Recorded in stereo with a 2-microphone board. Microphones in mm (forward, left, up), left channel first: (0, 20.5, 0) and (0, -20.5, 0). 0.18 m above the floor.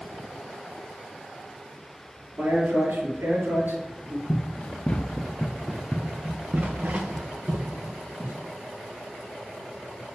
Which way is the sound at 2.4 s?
65° right (ahead or behind).